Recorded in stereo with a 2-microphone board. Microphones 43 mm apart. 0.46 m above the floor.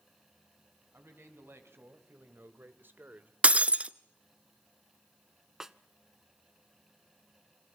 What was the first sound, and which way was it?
A man speaking, 70° right (ahead or behind).